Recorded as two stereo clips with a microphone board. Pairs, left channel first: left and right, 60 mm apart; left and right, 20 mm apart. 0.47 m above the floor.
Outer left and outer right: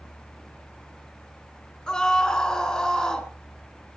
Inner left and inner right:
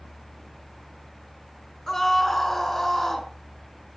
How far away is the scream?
About 4.5 m.